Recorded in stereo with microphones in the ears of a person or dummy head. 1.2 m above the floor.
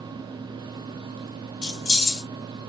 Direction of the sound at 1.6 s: 45° left (ahead or behind).